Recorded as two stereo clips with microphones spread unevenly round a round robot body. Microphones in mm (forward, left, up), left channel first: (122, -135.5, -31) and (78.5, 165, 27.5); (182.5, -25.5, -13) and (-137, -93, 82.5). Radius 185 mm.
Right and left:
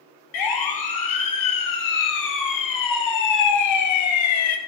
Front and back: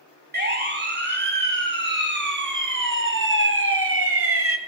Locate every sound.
0.3 s a siren: 105° right, 4.5 m; by 4.6 s 115° right, 1.7 m